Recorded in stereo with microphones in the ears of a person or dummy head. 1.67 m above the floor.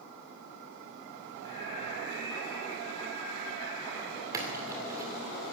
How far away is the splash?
About 2.5 m.